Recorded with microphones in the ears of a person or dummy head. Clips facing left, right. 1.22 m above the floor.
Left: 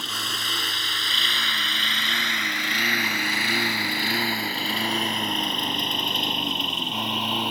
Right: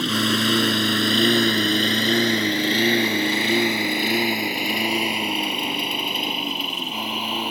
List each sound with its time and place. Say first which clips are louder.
0.0 s a lawn mower: right 15 dB; 60° right (ahead or behind); by 7.5 s centre (ahead or behind)